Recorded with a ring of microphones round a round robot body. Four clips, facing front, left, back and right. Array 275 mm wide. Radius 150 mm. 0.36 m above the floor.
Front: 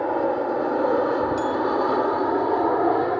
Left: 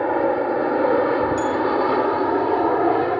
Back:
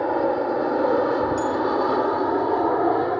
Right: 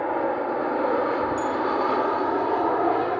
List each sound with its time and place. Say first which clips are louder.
0.0 s an aircraft: left 5 dB, back 1 dB; 100° left; by 3.2 s 90° left
1.4 s a bell: left 4 dB, even; 75° left